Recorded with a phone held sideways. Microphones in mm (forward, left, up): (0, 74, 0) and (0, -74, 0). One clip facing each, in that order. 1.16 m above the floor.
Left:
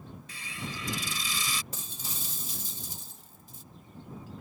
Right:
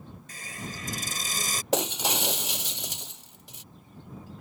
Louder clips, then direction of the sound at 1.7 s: Right 18 dB; 65° right (ahead or behind).